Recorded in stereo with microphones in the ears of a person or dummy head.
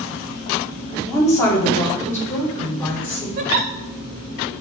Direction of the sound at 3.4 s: 45° right (ahead or behind).